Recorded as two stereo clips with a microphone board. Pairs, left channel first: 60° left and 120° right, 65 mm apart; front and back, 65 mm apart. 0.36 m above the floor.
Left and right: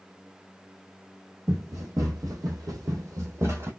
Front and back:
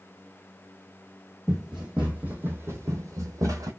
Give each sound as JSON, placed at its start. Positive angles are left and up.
{"t": 1.5, "sound": "running footsteps", "azimuth_deg": -95, "distance_m": 1.3}